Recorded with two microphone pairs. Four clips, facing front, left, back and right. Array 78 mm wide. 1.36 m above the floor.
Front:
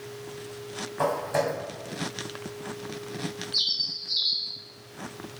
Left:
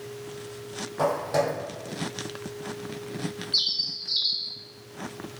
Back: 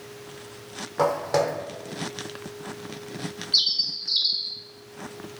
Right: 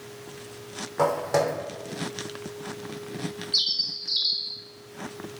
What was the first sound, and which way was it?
Footsteps, 155° right.